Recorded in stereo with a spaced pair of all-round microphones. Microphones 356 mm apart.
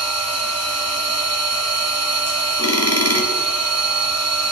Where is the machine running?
45° right (ahead or behind), 2.5 m.